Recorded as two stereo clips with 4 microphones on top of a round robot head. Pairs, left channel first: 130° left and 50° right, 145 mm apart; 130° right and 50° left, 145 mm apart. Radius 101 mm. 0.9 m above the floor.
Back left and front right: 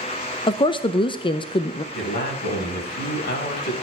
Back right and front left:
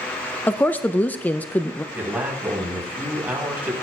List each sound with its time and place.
0.5 s a woman speaking: 155° left, 0.5 m
1.9 s a man speaking: 130° left, 5 m